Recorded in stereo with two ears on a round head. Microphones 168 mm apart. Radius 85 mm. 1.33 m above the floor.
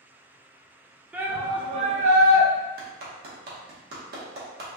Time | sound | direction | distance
1.1 | a shout | 10° right (ahead or behind) | 0.7 m
2.8 | a clap | 55° right (ahead or behind) | 0.9 m